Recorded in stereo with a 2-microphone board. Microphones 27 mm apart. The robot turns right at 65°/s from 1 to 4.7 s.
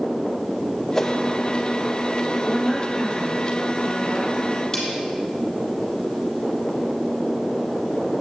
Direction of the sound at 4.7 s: 20° left (ahead or behind).